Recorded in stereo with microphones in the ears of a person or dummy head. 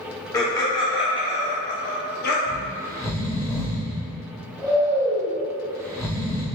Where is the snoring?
10° left (ahead or behind), 0.9 m.